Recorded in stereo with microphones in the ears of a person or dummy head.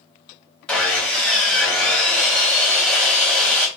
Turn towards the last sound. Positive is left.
turn(degrees=10)  # may be behind; listen again after turning